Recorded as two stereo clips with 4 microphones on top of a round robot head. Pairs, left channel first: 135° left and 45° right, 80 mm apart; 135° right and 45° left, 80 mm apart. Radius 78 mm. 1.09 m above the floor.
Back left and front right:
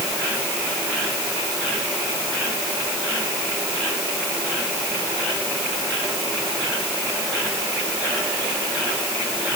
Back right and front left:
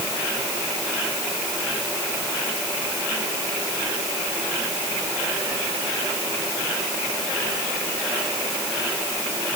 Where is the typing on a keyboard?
I don't hear typing on a keyboard.